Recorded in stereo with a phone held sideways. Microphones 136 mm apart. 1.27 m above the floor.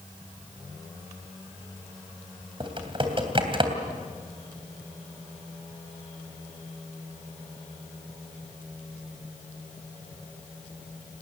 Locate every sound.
2.6 s typing on a keyboard: 40° right (ahead or behind), 3 m